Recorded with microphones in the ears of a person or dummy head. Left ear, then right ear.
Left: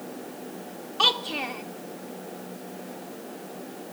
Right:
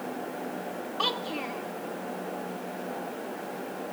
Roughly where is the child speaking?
Centre.